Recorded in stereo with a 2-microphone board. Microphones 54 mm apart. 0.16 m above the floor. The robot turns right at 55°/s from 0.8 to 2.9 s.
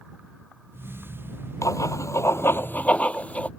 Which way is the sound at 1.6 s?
80° left.